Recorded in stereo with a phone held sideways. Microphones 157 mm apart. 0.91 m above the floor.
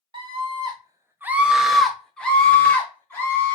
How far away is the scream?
About 0.6 m.